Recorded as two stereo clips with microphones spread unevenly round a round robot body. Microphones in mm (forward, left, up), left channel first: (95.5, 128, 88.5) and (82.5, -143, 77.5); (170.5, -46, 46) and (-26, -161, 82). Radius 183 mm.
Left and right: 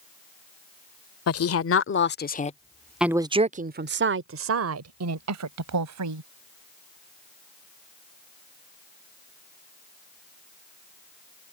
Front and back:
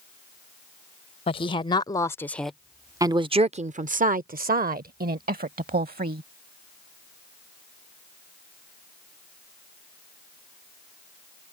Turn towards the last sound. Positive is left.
turn(degrees=-95)